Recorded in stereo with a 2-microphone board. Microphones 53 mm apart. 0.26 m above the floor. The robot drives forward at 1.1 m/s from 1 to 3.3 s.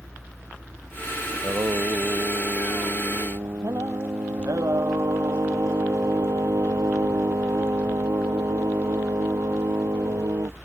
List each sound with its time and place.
1.3 s singing: 60° right (ahead or behind); by 10.6 s 70° right (ahead or behind)